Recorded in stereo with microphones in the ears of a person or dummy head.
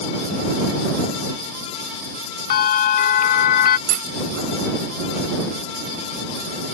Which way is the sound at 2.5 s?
55° left (ahead or behind).